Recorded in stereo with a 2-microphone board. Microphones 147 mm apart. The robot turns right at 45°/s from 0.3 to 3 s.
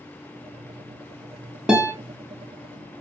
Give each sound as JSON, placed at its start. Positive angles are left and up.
{"t": 1.7, "sound": "a guitar", "side_deg": -5, "distance_m": 0.8}